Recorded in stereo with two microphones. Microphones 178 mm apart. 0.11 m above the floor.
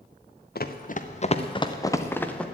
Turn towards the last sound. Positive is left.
turn(degrees=5)  # may be behind; listen again after turning